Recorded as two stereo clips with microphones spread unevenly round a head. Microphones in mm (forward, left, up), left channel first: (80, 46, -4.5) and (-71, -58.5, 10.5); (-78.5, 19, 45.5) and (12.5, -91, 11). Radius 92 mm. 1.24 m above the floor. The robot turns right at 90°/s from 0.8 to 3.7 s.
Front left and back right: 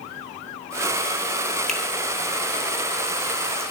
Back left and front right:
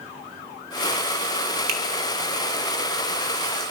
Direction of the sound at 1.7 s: 55° right.